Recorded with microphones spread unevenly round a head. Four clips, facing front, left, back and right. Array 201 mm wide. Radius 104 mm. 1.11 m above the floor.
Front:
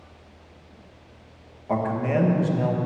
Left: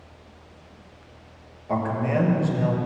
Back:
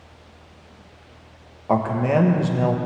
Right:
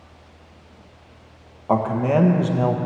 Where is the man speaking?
130° right, 1.1 m.